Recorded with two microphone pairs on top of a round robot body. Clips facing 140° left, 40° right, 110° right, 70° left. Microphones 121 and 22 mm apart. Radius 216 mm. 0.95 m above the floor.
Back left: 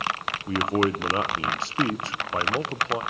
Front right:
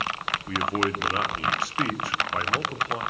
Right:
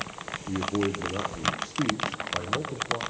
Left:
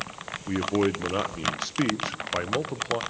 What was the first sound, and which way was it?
A man speaking, 80° left.